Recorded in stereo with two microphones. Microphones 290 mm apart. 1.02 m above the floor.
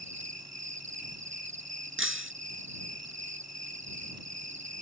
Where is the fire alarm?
No fire alarm in this recording.